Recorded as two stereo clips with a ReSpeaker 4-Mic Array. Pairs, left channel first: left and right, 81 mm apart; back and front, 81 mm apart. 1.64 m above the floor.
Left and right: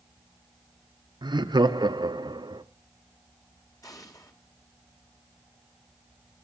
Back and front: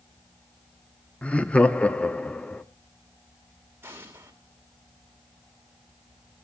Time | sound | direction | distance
1.2 | laughter | 105° right | 1.0 m
3.8 | an explosion | 60° left | 2.5 m